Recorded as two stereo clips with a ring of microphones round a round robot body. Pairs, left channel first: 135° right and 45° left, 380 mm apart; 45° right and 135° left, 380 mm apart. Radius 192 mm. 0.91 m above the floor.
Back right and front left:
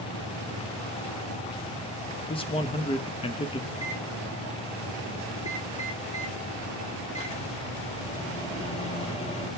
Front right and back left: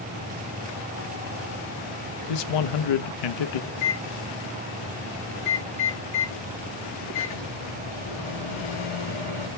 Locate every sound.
2.3 s a man speaking: 60° right, 0.8 m
3.7 s a microwave: 60° right, 4.5 m